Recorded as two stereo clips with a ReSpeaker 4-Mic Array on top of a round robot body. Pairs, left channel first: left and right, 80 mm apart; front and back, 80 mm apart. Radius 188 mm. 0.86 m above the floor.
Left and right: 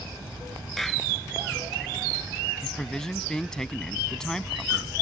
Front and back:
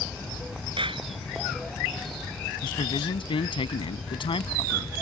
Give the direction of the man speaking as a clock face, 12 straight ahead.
12 o'clock.